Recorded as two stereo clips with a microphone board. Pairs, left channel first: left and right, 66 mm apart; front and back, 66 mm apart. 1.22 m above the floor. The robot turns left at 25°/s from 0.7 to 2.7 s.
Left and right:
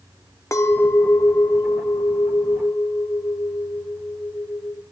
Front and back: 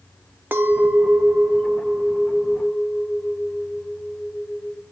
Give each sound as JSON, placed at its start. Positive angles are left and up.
{"t": 0.5, "sound": "a clink", "azimuth_deg": 125, "distance_m": 0.8}